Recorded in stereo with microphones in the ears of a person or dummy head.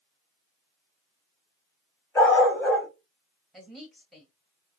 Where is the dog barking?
15° left (ahead or behind), 3 m.